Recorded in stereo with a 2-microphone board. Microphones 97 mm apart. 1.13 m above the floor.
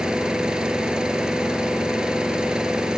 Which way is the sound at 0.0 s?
10° right (ahead or behind).